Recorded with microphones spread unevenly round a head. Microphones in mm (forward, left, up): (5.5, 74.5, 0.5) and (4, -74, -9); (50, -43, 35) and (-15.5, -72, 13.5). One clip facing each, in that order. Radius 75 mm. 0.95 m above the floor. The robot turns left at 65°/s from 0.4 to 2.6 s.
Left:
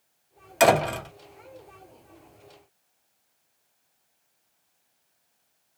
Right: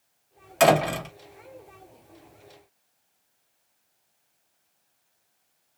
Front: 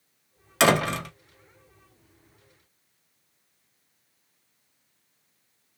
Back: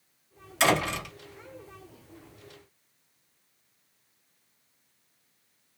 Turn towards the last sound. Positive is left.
turn(degrees=-125)